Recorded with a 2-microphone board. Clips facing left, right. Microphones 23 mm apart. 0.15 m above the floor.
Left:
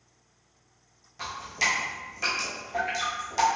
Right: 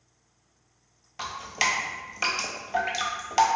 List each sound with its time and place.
1.2 s dripping: 50° right (ahead or behind), 0.8 m